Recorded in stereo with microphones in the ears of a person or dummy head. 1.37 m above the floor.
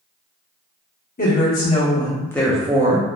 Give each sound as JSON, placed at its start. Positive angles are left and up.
{"t": 1.2, "sound": "a woman speaking", "side_deg": 40, "distance_m": 1.0}